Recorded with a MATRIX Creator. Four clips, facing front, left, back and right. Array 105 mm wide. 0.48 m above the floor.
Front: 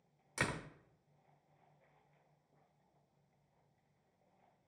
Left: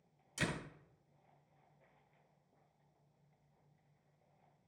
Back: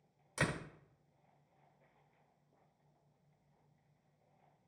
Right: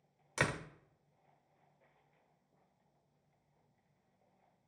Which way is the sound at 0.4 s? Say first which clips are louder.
Right 4 dB, back 2 dB; 85° right.